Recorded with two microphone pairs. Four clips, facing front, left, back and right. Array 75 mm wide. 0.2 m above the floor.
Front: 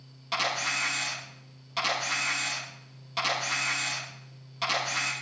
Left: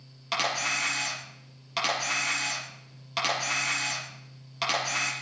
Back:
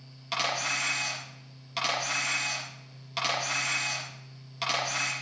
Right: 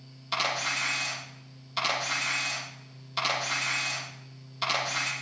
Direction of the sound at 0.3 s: 105° left.